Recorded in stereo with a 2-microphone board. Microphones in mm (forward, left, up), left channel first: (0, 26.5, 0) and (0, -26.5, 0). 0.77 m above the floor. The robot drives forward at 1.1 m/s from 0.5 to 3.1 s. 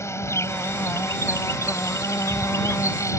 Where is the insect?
65° left (ahead or behind); by 3.2 s 70° left (ahead or behind).